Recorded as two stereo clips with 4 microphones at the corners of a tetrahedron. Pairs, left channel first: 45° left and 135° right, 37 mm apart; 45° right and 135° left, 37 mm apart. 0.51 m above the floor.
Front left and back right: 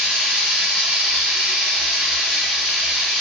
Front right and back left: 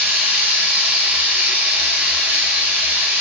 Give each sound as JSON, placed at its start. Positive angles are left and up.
{"t": 0.0, "sound": "running water", "azimuth_deg": 145, "distance_m": 0.8}